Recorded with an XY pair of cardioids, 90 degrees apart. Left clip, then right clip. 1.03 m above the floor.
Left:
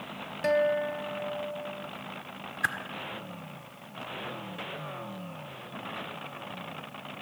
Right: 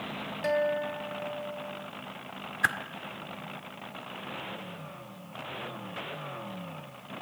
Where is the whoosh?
25° right, 1.5 m.